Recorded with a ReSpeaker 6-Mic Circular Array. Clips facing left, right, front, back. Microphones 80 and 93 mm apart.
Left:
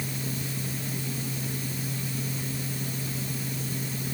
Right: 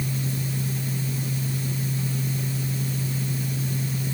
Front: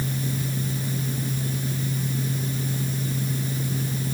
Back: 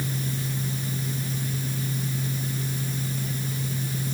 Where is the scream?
No scream in this recording.